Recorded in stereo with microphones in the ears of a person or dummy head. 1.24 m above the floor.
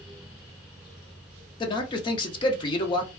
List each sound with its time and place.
1.6 s a man speaking: 25° left (ahead or behind), 0.5 m